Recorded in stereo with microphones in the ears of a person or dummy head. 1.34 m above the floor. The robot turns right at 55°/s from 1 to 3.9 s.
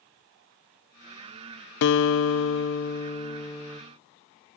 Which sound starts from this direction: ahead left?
A guitar, at 1.8 s.